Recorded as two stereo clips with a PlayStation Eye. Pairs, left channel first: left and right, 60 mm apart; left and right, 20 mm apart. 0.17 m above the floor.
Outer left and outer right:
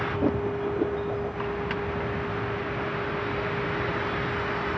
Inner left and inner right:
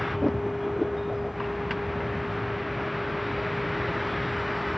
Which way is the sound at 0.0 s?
Centre (ahead or behind).